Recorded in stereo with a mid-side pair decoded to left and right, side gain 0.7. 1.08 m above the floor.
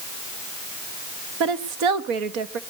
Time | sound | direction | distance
1.4 | a woman speaking | 65° right | 1.5 m